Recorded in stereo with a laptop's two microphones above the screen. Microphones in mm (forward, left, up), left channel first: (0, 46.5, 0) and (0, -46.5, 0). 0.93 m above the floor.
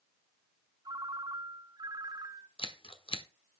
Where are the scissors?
75° left (ahead or behind), 1.1 m.